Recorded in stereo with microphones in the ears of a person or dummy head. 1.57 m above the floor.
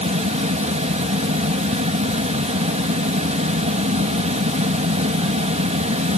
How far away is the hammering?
No hammering in this recording.